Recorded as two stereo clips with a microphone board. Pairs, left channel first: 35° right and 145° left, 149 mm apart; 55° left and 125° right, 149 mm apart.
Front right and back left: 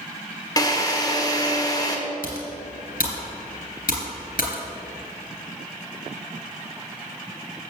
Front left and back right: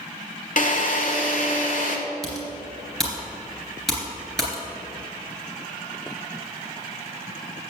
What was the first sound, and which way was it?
A drill, 30° left.